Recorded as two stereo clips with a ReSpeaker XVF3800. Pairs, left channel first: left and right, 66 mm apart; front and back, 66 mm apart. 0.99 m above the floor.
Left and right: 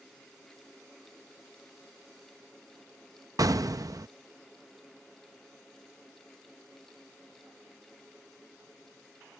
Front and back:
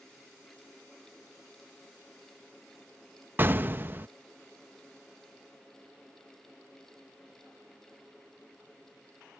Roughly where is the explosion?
Behind right.